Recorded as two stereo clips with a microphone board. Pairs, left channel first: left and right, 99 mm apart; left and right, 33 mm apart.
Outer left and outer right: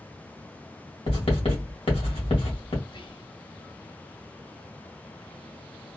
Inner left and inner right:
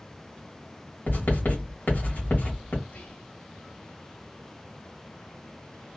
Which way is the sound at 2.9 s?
55° left (ahead or behind).